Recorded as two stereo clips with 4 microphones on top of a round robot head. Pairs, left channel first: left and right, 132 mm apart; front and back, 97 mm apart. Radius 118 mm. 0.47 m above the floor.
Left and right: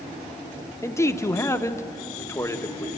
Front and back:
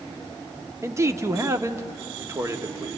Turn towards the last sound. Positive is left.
turn(degrees=145)